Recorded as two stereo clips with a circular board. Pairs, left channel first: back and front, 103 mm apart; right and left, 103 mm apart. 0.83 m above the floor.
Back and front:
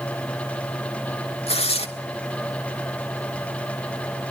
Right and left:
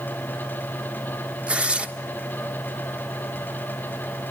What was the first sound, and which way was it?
Tearing paper, 170° left.